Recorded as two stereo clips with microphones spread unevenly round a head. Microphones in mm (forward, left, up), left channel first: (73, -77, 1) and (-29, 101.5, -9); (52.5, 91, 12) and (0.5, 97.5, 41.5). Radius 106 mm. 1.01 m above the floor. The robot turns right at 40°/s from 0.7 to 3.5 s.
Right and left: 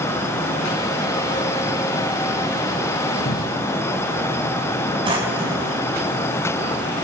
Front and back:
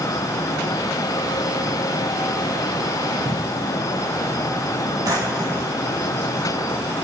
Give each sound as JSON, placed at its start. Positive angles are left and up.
{"t": 3.2, "sound": "a cupboard door", "azimuth_deg": -110, "distance_m": 2.0}
{"t": 5.0, "sound": "a drawer", "azimuth_deg": -170, "distance_m": 5.0}